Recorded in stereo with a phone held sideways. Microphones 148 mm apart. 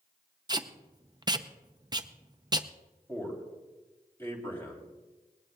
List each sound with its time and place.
0.5 s tape being pulled: 25° right (ahead or behind), 0.5 m
3.1 s a man speaking: 15° left (ahead or behind), 3 m